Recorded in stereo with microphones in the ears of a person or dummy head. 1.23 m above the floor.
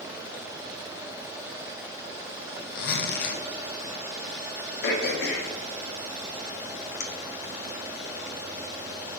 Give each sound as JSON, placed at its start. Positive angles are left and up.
{"t": 2.8, "sound": "a zipper", "side_deg": 60, "distance_m": 0.6}
{"t": 4.8, "sound": "throat clearing", "side_deg": 55, "distance_m": 0.7}